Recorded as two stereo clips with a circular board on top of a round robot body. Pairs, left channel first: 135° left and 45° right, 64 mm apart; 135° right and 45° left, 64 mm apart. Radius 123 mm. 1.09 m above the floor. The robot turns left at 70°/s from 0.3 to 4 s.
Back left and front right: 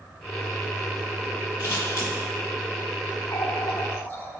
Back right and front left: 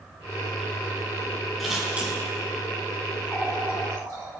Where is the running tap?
130° left, 2.5 m; by 4.3 s 80° left, 2.5 m.